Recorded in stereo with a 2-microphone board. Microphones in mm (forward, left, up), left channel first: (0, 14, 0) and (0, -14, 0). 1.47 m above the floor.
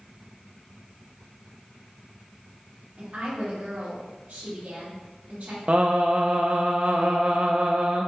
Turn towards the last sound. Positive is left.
turn(degrees=-45)  # may be behind; listen again after turning